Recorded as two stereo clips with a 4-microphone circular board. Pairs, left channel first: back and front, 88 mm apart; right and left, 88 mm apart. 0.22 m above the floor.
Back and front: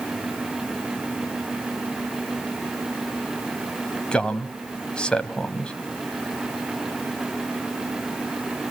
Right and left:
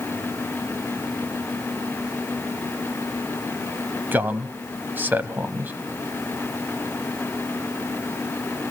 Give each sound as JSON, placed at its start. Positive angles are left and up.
{"t": 4.1, "sound": "a man speaking", "azimuth_deg": 115, "distance_m": 1.0}